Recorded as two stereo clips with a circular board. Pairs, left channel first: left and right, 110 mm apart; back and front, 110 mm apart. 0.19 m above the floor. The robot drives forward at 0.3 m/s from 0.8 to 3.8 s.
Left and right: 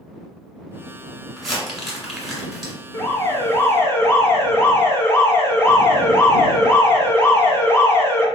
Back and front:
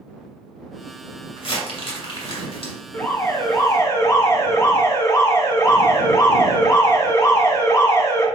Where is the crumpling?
Straight behind, 1.6 m.